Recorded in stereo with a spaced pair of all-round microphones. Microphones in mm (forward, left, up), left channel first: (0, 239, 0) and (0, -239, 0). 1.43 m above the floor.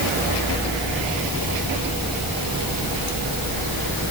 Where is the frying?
No frying in this recording.